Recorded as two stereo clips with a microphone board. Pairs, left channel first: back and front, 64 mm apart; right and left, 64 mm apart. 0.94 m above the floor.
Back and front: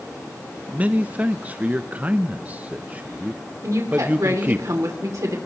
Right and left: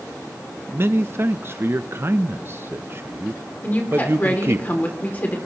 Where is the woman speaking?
30° right, 2.5 m.